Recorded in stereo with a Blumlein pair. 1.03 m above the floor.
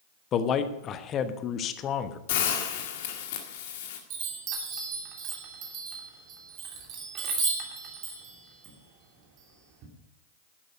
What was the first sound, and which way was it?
A man speaking, 30° left.